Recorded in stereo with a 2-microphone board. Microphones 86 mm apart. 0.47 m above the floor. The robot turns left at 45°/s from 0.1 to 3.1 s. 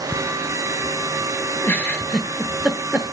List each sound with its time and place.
1.6 s a giggle: 25° left (ahead or behind), 1.1 m; by 3.0 s 20° right (ahead or behind), 1.1 m